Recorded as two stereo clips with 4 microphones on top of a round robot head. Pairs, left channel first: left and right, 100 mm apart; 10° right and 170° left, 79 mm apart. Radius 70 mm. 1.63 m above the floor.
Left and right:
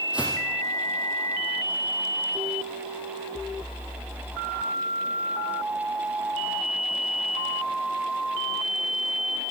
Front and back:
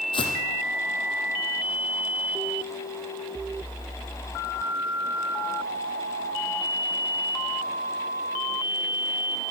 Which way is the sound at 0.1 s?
10° right.